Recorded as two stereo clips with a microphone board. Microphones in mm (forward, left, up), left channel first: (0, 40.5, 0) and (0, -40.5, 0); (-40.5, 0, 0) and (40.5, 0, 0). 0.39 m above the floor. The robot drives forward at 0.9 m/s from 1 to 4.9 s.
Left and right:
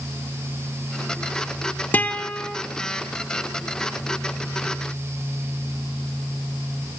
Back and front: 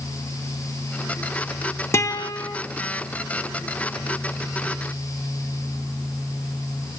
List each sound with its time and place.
1.9 s a guitar: 145° left, 0.5 m; by 2.6 s 165° left, 1.0 m